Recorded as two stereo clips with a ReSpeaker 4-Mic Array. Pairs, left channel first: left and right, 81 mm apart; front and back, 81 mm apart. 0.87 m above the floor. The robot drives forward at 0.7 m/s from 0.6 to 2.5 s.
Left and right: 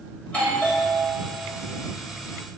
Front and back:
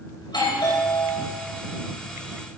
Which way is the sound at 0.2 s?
15° left.